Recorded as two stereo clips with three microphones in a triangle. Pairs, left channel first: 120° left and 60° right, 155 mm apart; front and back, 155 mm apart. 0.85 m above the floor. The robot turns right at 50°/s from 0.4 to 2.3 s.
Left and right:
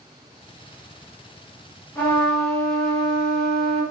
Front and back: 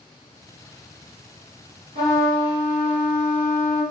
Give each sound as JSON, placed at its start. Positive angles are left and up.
{"t": 1.9, "sound": "a trumpet", "azimuth_deg": -170, "distance_m": 1.5}